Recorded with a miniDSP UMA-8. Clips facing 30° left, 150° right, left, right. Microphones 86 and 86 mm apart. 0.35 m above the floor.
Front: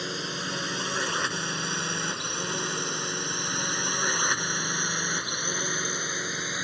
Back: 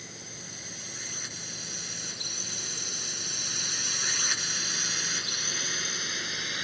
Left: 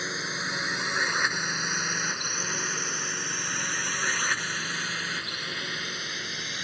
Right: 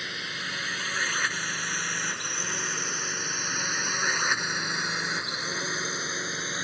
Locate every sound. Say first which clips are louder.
0.0 s a drone: front 13 dB, left 3 dB; 25° left; by 6.7 s 30° right